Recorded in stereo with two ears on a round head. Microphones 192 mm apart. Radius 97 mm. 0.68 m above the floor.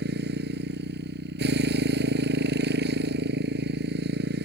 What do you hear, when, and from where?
0.0 s a motorcycle: 55° right (ahead or behind)